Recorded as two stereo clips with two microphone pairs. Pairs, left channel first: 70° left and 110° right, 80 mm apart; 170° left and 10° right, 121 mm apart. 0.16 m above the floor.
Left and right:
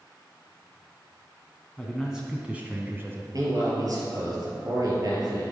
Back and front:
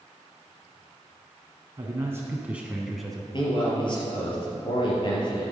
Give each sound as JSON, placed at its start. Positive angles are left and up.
{"t": 1.8, "sound": "a man speaking", "azimuth_deg": -10, "distance_m": 1.3}
{"t": 3.3, "sound": "a man speaking", "azimuth_deg": -145, "distance_m": 3.5}